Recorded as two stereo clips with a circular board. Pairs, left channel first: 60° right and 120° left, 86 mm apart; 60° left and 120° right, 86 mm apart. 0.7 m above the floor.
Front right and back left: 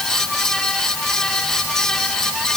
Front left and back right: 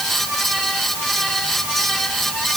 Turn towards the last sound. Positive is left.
No sound to turn to.